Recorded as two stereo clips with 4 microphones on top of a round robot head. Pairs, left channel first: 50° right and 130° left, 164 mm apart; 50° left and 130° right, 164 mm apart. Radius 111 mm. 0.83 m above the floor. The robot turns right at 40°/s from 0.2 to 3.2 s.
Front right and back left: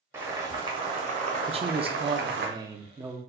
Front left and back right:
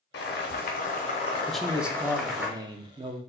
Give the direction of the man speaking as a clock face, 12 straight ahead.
7 o'clock.